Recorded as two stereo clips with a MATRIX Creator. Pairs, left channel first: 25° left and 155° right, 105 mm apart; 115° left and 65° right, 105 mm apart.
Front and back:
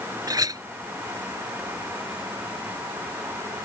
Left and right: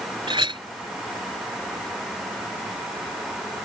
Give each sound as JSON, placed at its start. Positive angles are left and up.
{"t": 0.3, "sound": "a clink", "azimuth_deg": -105}